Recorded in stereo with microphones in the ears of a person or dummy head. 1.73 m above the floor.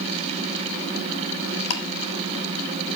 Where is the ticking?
70° left (ahead or behind), 3 m.